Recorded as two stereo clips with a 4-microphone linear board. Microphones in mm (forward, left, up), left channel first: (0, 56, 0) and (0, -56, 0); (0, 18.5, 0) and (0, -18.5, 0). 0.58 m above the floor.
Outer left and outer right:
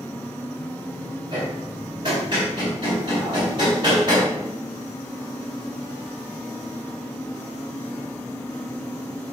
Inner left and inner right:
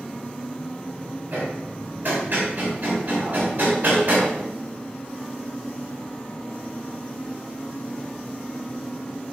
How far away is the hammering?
About 4 m.